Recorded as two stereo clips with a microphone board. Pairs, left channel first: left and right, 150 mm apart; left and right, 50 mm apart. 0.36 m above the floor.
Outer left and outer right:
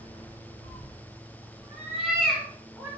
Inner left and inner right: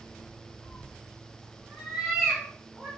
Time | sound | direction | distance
0.6 | a cat meowing | 45° right (ahead or behind) | 1.1 m